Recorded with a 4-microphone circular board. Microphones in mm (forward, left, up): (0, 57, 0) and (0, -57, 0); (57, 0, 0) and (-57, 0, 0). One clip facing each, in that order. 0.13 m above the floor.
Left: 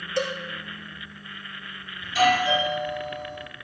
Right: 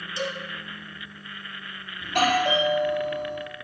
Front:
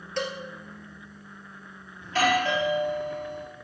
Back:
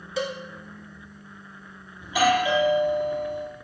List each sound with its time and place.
0.2 s a cowbell: 95° left, 1.6 m
2.0 s a doorbell: 105° right, 4.5 m